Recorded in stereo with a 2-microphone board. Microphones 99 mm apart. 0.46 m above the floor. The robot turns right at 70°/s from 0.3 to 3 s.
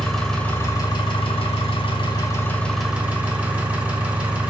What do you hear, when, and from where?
0.0 s an engine running: 5° left, 1.1 m; by 4.5 s 165° right, 1.1 m